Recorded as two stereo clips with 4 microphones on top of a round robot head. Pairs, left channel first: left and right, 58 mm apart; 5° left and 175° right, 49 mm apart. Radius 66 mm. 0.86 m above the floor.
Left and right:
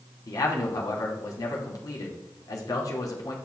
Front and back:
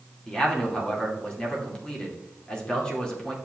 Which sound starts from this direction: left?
A man speaking, at 0.3 s.